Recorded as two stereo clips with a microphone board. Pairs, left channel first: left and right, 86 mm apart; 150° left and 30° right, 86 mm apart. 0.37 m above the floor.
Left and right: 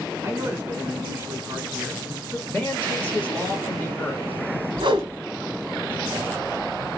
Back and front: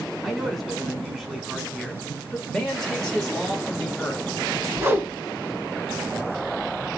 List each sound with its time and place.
0.2 s a man speaking: 120° right, 1.5 m
2.5 s a man speaking: 75° left, 1.3 m
4.8 s a whoosh: 90° right, 1.1 m